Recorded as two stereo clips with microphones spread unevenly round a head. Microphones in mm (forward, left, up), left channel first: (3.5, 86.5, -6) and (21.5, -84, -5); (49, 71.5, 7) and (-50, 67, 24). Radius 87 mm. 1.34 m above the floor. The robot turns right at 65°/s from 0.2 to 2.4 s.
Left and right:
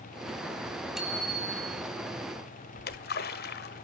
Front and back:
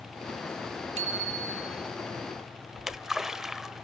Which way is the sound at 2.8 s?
105° left.